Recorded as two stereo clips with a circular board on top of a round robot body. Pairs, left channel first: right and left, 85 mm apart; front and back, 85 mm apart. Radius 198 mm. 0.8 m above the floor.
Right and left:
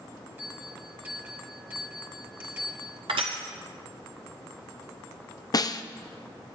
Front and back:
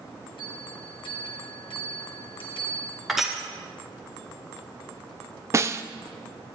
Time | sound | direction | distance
0.4 | a bell | 20° left | 1.6 m
3.1 | crushing | 95° left | 0.6 m
5.5 | a snare drum | 125° right | 0.6 m